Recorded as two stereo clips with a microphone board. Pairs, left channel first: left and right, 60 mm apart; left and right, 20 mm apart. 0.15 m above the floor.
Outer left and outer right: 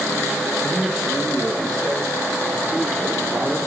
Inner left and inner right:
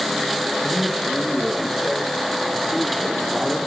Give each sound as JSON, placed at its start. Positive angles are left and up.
{"t": 0.6, "sound": "a man speaking", "side_deg": 5, "distance_m": 2.5}